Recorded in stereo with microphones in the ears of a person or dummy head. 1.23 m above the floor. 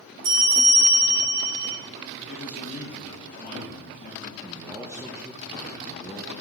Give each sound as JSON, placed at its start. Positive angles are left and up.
{"t": 0.2, "sound": "a bell", "side_deg": -70, "distance_m": 1.6}
{"t": 2.3, "sound": "a man speaking", "side_deg": 35, "distance_m": 1.5}
{"t": 4.4, "sound": "a man speaking", "side_deg": -10, "distance_m": 0.8}